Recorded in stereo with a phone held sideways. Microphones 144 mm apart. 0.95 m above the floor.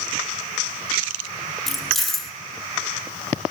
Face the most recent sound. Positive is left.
turn(degrees=0)  # may be behind; listen again after turning